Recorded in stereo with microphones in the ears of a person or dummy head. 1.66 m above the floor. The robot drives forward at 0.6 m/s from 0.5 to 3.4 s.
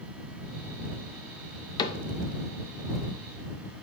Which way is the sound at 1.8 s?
25° left (ahead or behind).